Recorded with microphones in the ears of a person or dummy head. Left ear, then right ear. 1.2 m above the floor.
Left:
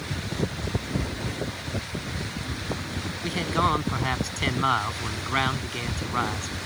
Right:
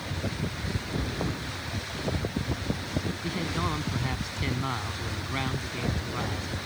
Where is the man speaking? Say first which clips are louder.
Left 10 dB; 40° left (ahead or behind).